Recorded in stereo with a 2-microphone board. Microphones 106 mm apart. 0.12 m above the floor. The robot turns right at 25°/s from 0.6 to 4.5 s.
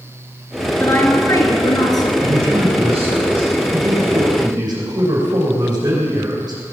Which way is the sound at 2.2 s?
105° right.